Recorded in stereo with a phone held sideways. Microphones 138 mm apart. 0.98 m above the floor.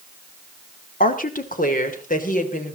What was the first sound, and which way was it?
A woman speaking, 85° left.